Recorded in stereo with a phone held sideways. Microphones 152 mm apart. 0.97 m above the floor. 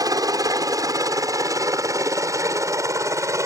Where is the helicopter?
25° right (ahead or behind); by 3.5 s 20° right (ahead or behind).